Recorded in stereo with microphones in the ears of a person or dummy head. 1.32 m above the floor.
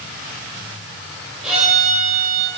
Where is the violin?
5° right (ahead or behind), 7 m.